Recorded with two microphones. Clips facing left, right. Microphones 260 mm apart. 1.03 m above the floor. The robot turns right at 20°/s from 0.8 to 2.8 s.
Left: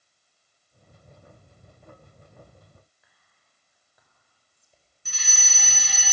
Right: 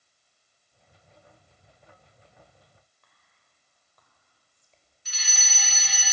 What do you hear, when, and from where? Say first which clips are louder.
3.0 s whispering: even; 10° left (ahead or behind), 5 m
5.0 s a fire alarm: left 1 dB; 50° left (ahead or behind), 2.5 m